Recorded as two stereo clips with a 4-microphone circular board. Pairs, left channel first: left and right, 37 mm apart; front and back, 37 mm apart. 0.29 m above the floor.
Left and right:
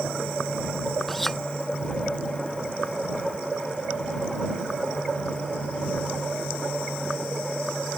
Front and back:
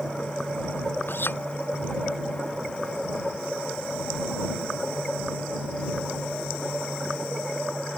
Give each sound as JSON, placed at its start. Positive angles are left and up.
{"t": 1.1, "sound": "a clink", "azimuth_deg": 5}